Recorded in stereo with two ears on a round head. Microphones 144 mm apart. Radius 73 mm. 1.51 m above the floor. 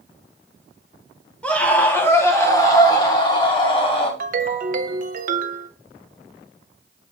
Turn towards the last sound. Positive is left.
turn(degrees=-50)  # may be behind; listen again after turning